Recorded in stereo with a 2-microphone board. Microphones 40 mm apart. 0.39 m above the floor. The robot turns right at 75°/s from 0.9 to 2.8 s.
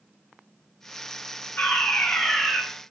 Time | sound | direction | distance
1.6 | a fire alarm | 100° left | 3 m